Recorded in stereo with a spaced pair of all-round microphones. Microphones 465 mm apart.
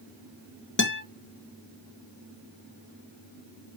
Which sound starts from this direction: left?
A guitar, at 0.8 s.